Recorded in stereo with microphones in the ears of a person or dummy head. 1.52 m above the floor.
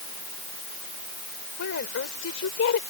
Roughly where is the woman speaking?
Left.